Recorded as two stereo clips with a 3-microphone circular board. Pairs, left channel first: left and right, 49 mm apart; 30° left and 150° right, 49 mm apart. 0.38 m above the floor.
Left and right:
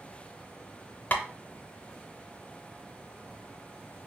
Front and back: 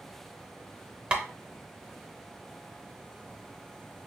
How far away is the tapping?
About 0.6 m.